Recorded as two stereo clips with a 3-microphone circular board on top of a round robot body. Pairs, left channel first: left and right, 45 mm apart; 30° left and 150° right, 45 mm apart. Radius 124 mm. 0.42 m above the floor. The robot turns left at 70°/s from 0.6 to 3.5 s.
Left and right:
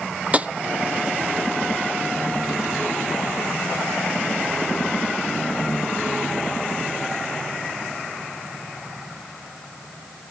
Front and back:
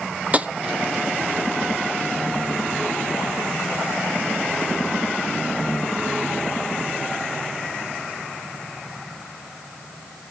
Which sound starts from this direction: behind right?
Tapping, at 0.3 s.